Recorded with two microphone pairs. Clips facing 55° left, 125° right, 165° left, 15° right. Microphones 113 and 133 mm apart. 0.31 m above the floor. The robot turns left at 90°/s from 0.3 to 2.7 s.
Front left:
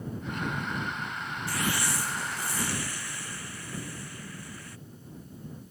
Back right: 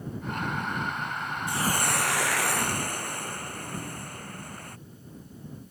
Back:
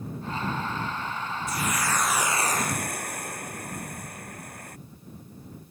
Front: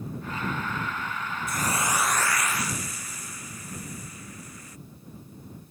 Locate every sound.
1.5 s a hiss: 55° right; by 4.8 s 165° right